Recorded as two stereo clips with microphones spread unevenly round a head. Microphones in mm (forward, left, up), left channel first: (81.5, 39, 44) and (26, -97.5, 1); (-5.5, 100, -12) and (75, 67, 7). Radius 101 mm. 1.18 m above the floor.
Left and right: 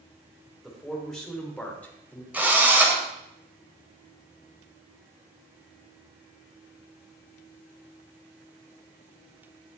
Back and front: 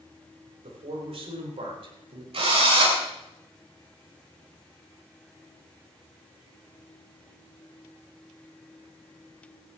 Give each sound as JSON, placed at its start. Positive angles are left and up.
{"t": 0.6, "sound": "a man speaking", "azimuth_deg": -20, "distance_m": 4.0}
{"t": 2.3, "sound": "a drill", "azimuth_deg": -30, "distance_m": 3.5}